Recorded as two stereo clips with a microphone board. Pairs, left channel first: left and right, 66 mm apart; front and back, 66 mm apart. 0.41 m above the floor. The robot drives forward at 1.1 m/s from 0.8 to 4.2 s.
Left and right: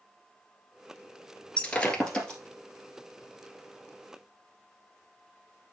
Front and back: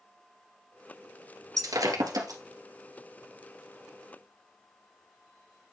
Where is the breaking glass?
160° left, 1.3 m; by 2.4 s 170° left, 2 m.